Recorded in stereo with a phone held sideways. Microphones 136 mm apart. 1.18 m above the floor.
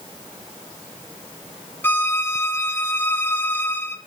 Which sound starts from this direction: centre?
A violin, at 1.8 s.